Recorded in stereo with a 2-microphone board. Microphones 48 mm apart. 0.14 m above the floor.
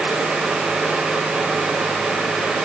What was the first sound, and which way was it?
Only background noise.